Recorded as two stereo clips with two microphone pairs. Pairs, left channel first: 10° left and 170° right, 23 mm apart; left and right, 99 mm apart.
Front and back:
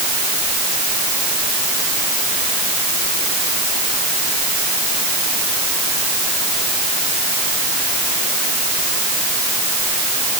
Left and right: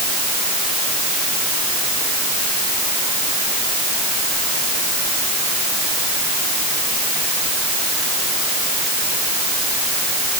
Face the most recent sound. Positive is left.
No sound to turn to.